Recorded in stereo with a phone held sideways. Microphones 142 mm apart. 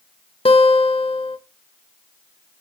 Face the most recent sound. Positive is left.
turn(degrees=40)  # may be behind; listen again after turning